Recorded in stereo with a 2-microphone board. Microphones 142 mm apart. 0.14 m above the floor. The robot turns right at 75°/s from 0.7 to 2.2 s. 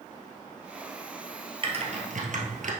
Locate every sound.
1.6 s typing on a keyboard: 40° right (ahead or behind), 1.6 m; by 2.7 s 65° right (ahead or behind), 1.6 m